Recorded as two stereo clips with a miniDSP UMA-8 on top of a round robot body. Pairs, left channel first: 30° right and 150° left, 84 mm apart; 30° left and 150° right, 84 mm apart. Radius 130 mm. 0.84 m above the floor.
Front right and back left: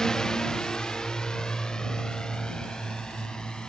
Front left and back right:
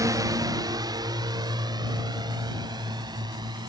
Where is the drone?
110° right.